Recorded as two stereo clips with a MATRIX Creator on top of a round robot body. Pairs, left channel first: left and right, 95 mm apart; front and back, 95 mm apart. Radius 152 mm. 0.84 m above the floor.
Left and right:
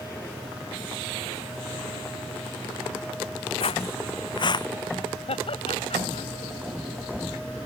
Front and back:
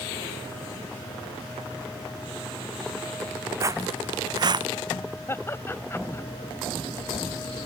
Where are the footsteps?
120° left; by 4.7 s 140° left.